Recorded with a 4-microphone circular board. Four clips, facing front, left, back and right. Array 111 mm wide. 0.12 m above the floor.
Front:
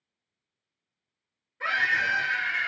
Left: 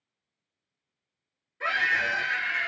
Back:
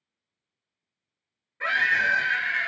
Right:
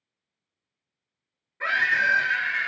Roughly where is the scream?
Behind right.